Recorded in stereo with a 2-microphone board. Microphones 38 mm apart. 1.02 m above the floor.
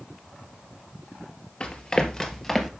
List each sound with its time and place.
1.6 s running footsteps: 30° left (ahead or behind), 1.3 m; by 2.7 s 5° left (ahead or behind), 1.4 m